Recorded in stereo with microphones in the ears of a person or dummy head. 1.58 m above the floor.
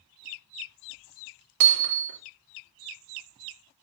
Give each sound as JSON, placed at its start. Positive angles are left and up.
{"t": 1.6, "sound": "hammering", "side_deg": -85, "distance_m": 3.0}